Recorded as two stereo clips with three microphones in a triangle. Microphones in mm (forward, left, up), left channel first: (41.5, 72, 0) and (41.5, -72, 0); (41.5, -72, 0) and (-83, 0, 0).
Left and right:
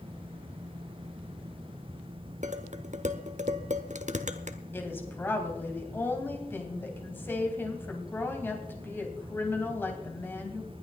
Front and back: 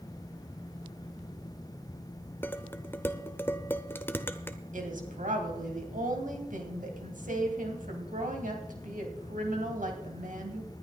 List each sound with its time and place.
2.4 s dishes clattering: 105° right, 0.9 m
4.7 s a woman speaking: 165° left, 3 m